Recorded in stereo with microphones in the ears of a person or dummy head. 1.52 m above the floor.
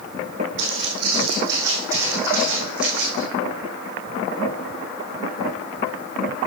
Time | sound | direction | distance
0.6 | footsteps | 30° right (ahead or behind) | 3.5 m